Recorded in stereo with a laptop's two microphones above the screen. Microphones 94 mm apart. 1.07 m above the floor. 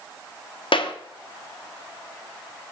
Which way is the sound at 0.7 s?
70° left (ahead or behind).